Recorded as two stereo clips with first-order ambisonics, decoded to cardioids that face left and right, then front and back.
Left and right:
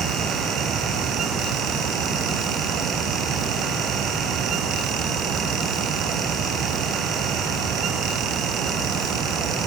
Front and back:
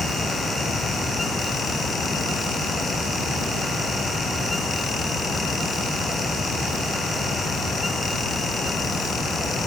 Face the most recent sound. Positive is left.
No sound to turn to.